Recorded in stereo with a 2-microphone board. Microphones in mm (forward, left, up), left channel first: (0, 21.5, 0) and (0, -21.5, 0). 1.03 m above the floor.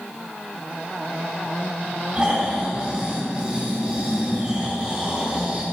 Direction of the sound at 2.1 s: 20° right (ahead or behind).